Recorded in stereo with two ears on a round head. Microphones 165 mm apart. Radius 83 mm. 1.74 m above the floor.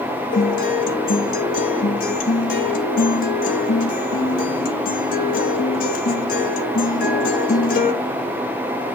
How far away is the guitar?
About 1.8 m.